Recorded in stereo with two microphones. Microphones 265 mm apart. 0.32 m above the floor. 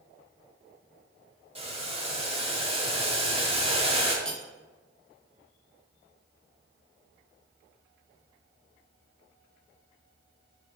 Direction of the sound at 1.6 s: 20° right (ahead or behind).